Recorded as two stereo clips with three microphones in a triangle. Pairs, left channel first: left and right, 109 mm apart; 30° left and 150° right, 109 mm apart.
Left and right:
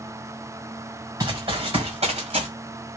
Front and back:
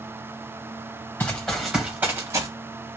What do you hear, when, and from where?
1.2 s running footsteps: 45° right, 1.4 m; by 2.5 s 95° right, 1.5 m